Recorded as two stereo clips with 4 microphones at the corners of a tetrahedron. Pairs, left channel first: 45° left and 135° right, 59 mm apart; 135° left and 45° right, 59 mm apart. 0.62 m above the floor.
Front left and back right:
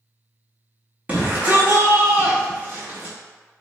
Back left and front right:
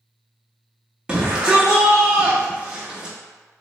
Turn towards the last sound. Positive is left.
turn(degrees=-105)